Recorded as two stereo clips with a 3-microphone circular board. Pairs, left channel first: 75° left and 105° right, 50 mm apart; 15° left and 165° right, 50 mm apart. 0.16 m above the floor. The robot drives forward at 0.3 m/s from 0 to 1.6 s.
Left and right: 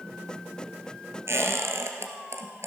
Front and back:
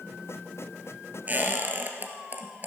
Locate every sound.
1.3 s a squeak: 115° right, 1.5 m